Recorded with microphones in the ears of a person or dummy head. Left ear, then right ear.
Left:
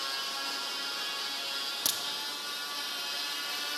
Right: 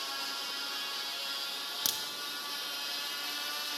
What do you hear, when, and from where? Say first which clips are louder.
1.9 s a crack: left 1 dB; 5° right (ahead or behind), 0.9 m